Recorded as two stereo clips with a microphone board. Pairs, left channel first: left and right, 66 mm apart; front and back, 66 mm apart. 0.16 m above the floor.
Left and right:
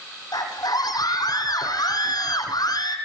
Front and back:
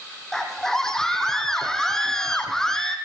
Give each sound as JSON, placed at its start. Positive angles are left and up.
{"t": 0.3, "sound": "a scream", "azimuth_deg": 80, "distance_m": 6.5}